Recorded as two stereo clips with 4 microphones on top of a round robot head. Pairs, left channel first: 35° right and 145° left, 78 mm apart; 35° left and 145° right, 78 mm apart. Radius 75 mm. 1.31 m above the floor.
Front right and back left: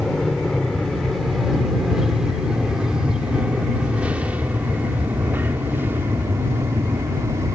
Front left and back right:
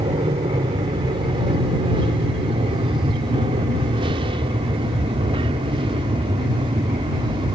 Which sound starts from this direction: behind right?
An aircraft, at 0.0 s.